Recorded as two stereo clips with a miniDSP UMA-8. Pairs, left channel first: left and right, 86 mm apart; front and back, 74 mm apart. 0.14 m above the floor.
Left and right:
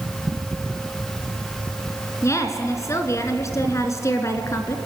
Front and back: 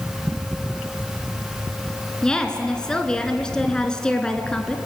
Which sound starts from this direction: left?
A woman speaking, at 2.2 s.